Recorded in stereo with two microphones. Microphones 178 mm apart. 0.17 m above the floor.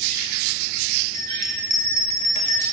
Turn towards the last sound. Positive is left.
turn(degrees=-40)  # may be behind; listen again after turning